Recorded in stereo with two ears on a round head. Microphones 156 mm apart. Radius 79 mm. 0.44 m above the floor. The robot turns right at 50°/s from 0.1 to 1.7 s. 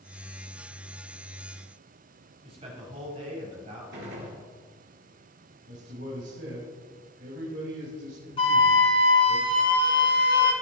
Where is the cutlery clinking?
No cutlery clinking in this recording.